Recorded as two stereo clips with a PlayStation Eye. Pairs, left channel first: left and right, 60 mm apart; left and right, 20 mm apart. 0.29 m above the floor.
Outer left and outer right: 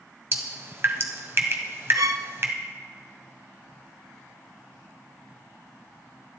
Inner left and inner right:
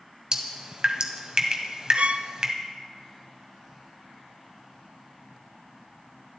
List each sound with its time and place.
0.3 s dripping: 45° right (ahead or behind), 1.6 m
1.9 s a violin: 85° right, 0.6 m